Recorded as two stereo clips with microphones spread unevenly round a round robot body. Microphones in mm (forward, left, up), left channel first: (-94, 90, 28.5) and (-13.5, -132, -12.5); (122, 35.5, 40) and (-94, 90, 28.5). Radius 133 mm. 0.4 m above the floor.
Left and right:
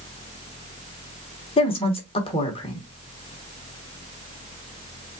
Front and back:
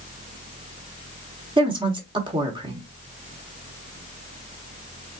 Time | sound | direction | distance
1.6 | a woman speaking | 170° left | 1.0 m